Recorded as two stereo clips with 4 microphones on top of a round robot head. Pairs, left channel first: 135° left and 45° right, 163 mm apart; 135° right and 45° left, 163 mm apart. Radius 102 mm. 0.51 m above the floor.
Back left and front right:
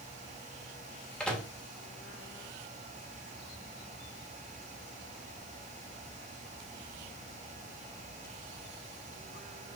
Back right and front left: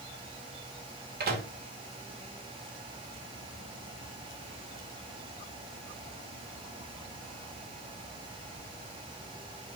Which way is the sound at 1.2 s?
45° left.